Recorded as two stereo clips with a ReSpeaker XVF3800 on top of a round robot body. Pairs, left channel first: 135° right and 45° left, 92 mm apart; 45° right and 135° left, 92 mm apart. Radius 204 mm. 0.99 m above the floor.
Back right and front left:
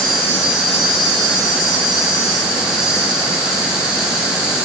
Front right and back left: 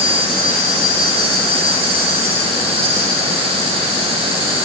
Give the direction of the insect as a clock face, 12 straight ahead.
8 o'clock.